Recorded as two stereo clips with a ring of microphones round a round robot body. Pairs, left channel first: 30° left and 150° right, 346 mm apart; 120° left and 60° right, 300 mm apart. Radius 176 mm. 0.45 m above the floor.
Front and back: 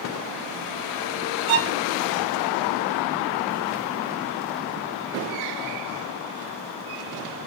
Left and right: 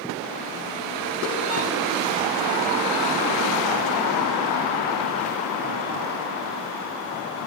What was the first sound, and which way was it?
A violin, 150° right.